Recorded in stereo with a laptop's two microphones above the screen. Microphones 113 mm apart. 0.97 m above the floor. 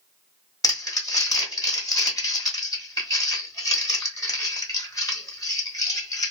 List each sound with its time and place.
0.6 s crumpling: 30° left (ahead or behind), 1.3 m